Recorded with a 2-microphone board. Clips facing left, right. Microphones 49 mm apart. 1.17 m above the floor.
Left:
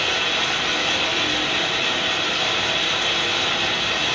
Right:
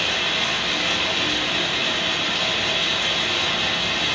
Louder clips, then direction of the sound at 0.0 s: Left 1 dB; 70° left (ahead or behind).